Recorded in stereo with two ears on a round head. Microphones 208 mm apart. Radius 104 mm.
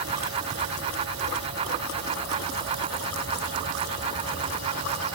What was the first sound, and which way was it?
Only background noise.